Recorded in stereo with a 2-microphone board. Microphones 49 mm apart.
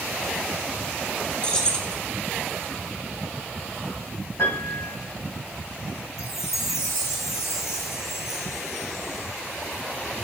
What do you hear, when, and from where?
1.4 s keys jangling: 20° left (ahead or behind), 1.0 m
4.4 s a piano: 70° left (ahead or behind), 3.5 m
6.2 s a chime: 75° left (ahead or behind), 1.3 m